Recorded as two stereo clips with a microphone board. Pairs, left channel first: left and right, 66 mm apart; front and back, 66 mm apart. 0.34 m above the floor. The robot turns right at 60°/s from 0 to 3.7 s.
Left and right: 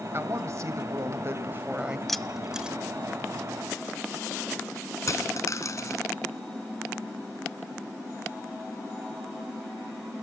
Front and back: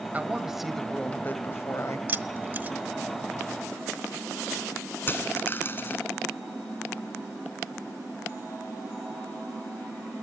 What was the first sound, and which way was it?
A woman speaking, 125° right.